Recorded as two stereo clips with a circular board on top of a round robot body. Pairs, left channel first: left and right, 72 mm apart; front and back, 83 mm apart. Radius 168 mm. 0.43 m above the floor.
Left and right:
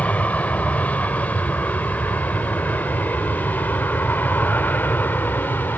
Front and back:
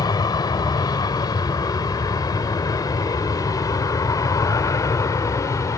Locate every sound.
0.0 s an aircraft: 25° left; by 5.8 s 35° left